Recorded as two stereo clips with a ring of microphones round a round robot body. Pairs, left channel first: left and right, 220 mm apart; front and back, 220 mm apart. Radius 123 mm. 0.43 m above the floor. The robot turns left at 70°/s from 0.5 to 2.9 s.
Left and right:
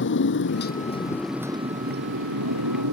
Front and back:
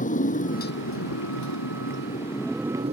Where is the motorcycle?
55° left; by 2.9 s 115° right.